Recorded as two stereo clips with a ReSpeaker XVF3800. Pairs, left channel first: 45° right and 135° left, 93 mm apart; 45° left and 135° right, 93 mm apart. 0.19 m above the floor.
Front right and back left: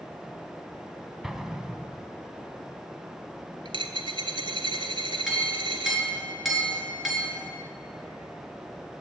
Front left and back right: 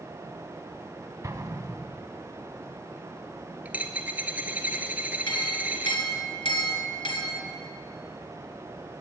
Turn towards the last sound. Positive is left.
turn(degrees=45)